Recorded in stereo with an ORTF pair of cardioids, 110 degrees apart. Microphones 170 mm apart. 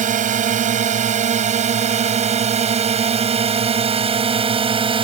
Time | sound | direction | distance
0.0 | a drone | 50° right | ?